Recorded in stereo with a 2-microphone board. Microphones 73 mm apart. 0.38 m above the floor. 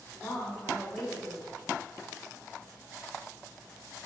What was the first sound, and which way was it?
A woman speaking, 20° left (ahead or behind).